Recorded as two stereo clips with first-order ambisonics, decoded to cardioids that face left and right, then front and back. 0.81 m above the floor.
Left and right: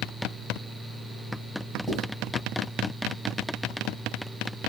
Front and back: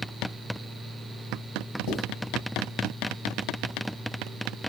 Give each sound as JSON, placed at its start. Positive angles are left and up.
{"t": 1.9, "sound": "writing", "azimuth_deg": 5, "distance_m": 2.5}